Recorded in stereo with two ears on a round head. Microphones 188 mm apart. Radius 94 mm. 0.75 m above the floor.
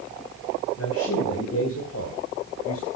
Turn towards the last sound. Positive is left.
turn(degrees=75)  # may be behind; listen again after turning